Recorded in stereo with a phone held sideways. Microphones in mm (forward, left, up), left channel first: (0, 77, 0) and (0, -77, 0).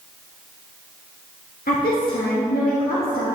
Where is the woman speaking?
85° left, 1.8 m.